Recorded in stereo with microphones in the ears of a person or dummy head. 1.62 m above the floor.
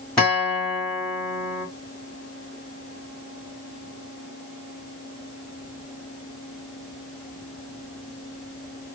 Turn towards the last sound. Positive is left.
turn(degrees=5)  # may be behind; listen again after turning